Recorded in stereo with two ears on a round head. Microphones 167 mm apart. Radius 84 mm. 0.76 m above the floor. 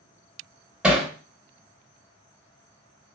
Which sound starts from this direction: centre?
Hammering, at 0.8 s.